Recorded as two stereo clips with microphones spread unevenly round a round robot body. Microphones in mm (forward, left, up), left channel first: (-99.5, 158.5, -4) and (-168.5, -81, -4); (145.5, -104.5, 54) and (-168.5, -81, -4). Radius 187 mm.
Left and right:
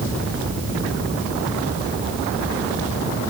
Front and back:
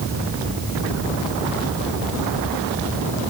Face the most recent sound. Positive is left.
No sound to turn to.